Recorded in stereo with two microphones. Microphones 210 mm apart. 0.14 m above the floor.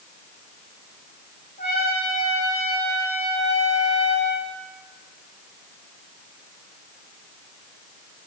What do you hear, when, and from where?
1.6 s a trumpet: 50° left (ahead or behind), 6.5 m